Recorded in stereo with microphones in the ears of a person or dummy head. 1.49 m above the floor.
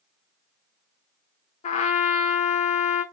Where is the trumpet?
45° left (ahead or behind), 0.8 m.